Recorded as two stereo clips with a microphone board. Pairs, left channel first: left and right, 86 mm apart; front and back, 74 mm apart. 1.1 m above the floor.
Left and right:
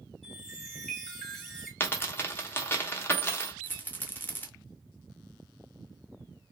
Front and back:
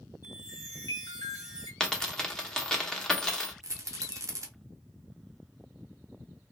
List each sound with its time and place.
0.2 s a chime: straight ahead, 1.1 m
1.8 s a dropped coin: 75° left, 0.7 m
3.6 s a rattle: 150° left, 0.6 m